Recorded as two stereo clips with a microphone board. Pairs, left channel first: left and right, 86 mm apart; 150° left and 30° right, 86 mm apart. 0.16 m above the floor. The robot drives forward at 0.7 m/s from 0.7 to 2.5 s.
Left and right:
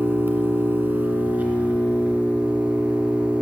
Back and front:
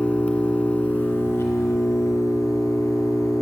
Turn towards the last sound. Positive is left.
turn(degrees=-165)